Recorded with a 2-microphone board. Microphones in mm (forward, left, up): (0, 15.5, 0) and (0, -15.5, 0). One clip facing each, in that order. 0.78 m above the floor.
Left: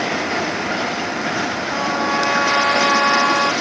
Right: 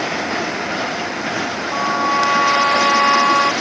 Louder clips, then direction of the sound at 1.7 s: Right 4 dB; 20° right (ahead or behind).